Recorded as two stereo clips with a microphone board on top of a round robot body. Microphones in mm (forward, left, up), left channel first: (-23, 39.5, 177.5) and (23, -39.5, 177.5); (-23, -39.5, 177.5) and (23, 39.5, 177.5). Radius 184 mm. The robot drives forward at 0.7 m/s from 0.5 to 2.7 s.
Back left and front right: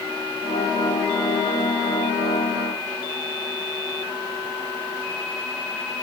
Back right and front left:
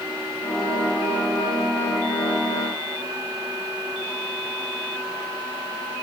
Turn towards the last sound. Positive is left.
No sound to turn to.